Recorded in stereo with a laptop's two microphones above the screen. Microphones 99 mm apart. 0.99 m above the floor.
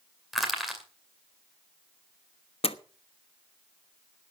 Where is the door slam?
70° left (ahead or behind), 1.1 m.